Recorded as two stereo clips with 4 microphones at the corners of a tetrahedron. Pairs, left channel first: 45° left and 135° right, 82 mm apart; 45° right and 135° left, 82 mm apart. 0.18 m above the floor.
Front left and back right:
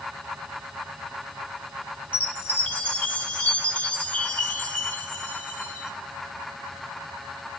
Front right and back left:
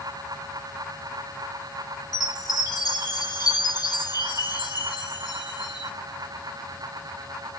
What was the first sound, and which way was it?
A chime, 25° right.